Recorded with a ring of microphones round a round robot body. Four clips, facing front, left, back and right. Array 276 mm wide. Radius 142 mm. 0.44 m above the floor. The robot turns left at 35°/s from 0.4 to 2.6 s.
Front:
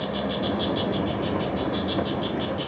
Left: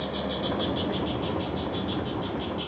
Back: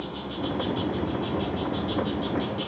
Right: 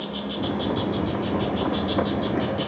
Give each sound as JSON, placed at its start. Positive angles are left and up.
{"t": 0.0, "sound": "an insect", "azimuth_deg": 10, "distance_m": 0.9}